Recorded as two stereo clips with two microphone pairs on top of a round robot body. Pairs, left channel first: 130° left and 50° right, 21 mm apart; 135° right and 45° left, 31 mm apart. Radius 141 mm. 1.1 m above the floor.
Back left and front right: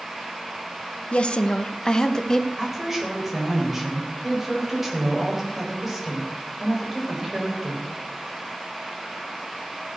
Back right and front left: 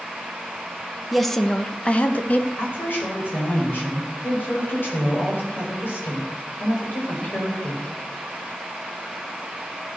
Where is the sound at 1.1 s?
130° left, 1.1 m; by 2.5 s 170° right, 2.0 m.